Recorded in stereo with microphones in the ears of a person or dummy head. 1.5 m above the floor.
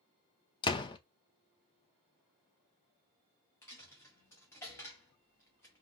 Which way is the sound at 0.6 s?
20° left (ahead or behind).